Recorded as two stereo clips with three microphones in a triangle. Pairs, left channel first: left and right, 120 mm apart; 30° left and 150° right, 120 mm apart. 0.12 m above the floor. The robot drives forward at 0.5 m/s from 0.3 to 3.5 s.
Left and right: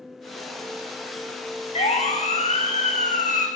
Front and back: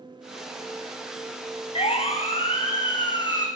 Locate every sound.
1.8 s a siren: 65° left, 6 m; by 3.5 s 80° left, 6 m